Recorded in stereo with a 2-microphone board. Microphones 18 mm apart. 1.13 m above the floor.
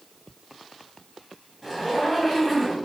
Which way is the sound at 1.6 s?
15° right (ahead or behind).